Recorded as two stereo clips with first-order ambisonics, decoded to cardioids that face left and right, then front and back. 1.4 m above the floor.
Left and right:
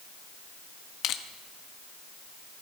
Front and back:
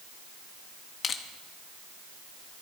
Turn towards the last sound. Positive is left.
turn(degrees=60)